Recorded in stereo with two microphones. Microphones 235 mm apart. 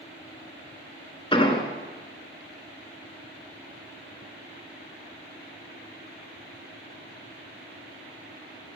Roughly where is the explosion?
Left.